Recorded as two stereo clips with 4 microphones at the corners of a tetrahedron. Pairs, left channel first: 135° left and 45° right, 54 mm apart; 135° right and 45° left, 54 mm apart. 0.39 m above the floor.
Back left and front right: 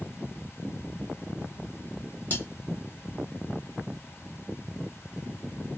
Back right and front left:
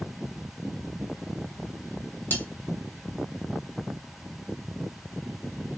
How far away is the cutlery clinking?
About 1.3 m.